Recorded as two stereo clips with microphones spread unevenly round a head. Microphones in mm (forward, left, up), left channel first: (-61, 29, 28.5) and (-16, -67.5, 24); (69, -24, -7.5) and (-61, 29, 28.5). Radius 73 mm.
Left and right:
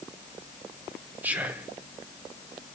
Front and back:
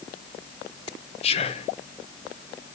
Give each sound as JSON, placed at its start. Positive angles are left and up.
{"t": 1.2, "sound": "whispering", "azimuth_deg": 10, "distance_m": 0.7}